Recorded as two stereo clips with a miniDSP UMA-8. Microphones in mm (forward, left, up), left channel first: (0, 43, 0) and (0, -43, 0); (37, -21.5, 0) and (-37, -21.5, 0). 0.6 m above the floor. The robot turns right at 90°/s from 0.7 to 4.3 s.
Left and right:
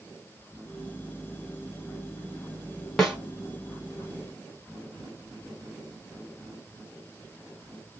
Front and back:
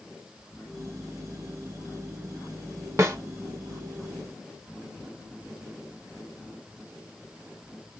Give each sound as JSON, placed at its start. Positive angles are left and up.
{"t": 3.0, "sound": "a snare drum", "azimuth_deg": 170, "distance_m": 1.3}